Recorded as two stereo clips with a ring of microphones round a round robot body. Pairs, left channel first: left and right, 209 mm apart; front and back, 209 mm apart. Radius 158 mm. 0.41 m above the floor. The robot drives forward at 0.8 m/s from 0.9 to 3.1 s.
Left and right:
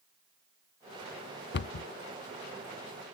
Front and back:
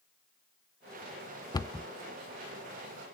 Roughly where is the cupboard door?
Left.